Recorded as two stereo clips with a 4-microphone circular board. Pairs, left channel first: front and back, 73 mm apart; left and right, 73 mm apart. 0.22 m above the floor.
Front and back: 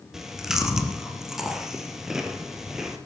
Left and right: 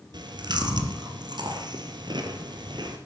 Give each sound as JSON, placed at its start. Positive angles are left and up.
{"t": 0.1, "sound": "chewing", "azimuth_deg": -95, "distance_m": 1.8}